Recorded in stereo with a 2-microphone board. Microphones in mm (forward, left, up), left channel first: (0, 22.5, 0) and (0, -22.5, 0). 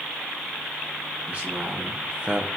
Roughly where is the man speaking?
Right.